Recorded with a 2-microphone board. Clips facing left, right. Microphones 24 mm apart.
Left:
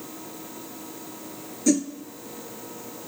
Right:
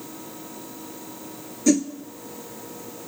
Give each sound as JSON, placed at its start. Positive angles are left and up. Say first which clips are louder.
{"t": 1.7, "sound": "a whoosh", "louder": "right 2 dB", "side_deg": -20, "distance_m": 0.7}